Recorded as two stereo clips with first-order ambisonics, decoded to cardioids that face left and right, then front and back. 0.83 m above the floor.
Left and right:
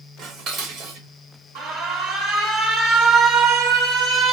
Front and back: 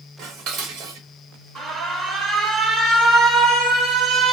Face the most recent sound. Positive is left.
turn(degrees=-125)